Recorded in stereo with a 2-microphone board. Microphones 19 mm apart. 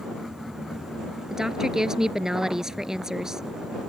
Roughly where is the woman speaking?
Right.